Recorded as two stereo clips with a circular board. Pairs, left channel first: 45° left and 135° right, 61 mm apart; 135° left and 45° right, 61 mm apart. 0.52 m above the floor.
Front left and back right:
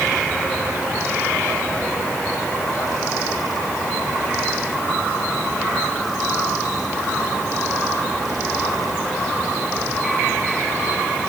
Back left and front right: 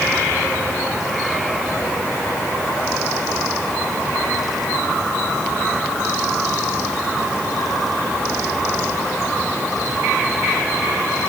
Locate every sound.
Only background noise.